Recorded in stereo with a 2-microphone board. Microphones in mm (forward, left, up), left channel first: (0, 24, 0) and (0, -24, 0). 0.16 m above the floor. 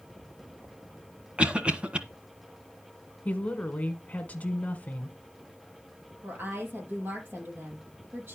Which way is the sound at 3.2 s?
30° left (ahead or behind).